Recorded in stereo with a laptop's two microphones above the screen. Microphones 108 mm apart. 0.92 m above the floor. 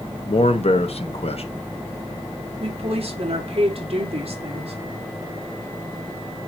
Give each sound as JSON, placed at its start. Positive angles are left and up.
{"t": 0.3, "sound": "a man speaking", "side_deg": 65, "distance_m": 1.1}
{"t": 2.6, "sound": "a woman speaking", "side_deg": -60, "distance_m": 2.5}